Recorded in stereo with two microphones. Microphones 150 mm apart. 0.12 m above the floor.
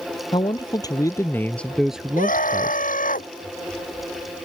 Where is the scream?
70° left (ahead or behind).